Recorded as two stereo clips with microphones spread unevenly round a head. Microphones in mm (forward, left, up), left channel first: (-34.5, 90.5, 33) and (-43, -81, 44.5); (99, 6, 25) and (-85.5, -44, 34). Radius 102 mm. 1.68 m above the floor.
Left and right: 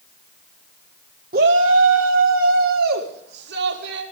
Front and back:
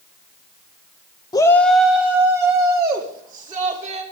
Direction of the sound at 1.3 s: 55° right.